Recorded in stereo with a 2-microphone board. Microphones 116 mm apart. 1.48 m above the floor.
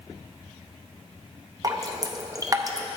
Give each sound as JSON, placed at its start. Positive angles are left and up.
{"t": 1.6, "sound": "dripping", "side_deg": -30, "distance_m": 0.6}